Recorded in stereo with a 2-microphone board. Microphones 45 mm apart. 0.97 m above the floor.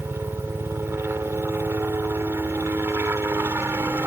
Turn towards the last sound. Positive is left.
turn(degrees=-65)  # may be behind; listen again after turning